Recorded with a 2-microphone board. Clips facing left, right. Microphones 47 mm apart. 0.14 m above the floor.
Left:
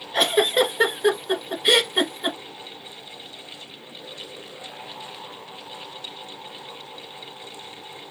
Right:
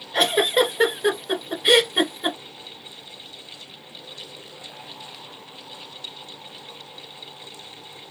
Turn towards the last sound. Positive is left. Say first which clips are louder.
# even
turn(degrees=-5)  # may be behind; listen again after turning